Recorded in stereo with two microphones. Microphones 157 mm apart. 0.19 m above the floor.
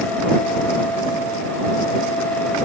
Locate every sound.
Only background noise.